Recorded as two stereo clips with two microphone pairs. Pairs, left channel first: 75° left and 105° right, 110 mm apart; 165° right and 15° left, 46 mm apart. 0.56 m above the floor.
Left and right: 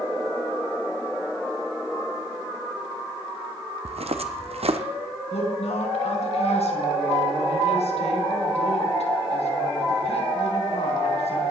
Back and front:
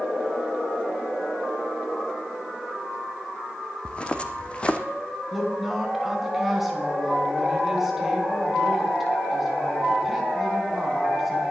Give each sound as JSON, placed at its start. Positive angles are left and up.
{"t": 3.9, "sound": "footsteps", "azimuth_deg": -105, "distance_m": 1.2}
{"t": 5.3, "sound": "a woman speaking", "azimuth_deg": 95, "distance_m": 4.5}